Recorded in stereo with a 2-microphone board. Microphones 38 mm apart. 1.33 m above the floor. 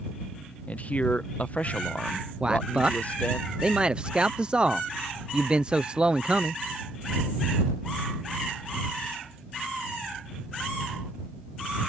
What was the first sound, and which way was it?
A man speaking, 35° left (ahead or behind).